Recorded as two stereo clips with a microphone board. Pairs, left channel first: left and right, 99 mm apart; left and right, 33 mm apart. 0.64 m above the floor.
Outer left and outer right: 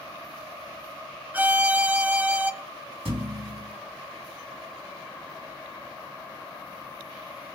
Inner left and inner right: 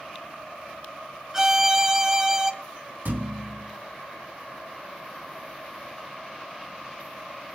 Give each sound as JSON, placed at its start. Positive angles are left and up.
{"t": 1.3, "sound": "a violin", "side_deg": -15, "distance_m": 1.0}
{"t": 3.0, "sound": "a thud", "side_deg": -65, "distance_m": 3.0}